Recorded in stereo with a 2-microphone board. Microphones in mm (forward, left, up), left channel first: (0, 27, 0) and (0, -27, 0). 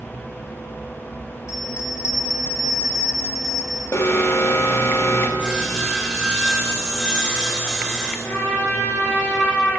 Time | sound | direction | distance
1.5 | a bell | 80° left | 4 m
3.9 | an alarm | 60° left (ahead or behind) | 1.8 m
5.4 | sawing | 15° left (ahead or behind) | 3 m
8.2 | a trumpet | 45° left (ahead or behind) | 5 m